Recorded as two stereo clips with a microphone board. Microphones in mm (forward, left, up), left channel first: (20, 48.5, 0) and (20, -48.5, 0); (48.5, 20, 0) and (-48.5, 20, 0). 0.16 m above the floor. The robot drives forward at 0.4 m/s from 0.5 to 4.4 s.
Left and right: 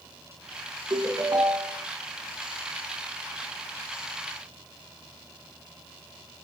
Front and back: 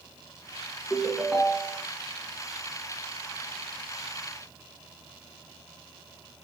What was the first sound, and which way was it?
A ringtone, 80° right.